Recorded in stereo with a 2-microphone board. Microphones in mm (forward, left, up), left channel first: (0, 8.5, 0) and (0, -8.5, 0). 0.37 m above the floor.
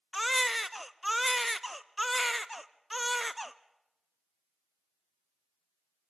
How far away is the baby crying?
About 0.6 m.